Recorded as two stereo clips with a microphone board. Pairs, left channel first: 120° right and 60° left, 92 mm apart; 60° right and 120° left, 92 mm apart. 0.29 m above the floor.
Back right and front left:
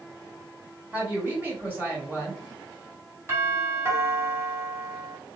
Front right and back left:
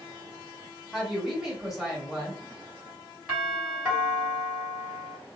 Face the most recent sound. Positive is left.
turn(degrees=55)